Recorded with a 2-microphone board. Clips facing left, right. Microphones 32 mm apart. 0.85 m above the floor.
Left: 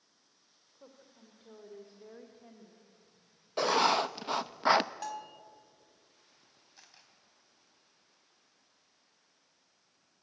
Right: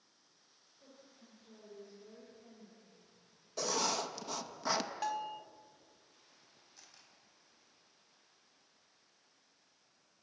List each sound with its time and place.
0.8 s a woman speaking: 75° left (ahead or behind), 3 m; by 3.0 s 25° left (ahead or behind), 2 m
3.6 s writing: 40° left (ahead or behind), 0.6 m
5.0 s a bell: 15° right (ahead or behind), 0.9 m
6.8 s a camera shutter: 20° left (ahead or behind), 4 m